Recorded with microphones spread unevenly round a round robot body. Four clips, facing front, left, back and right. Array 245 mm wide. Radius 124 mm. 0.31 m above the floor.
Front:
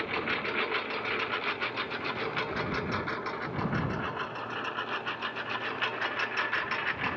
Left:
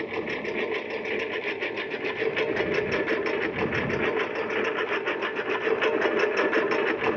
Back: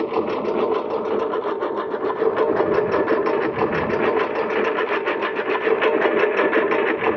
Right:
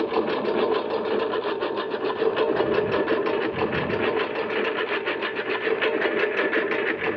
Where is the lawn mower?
150° right; by 7.2 s straight behind.